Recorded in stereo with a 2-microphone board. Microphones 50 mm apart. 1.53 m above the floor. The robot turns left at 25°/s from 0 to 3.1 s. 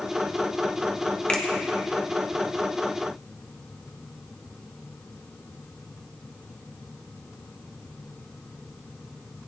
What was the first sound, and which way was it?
A finger snap, 25° left (ahead or behind).